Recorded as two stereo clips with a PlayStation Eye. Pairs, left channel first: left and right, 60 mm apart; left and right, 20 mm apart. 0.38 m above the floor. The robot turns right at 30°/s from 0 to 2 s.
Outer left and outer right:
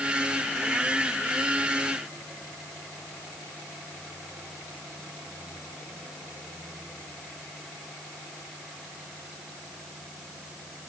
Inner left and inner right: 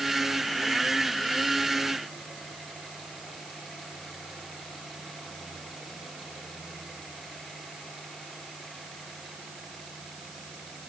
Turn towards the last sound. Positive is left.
No sound to turn to.